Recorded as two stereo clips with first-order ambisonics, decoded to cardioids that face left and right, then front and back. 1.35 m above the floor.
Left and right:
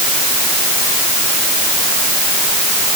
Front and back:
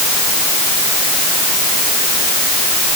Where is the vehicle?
No vehicle in this recording.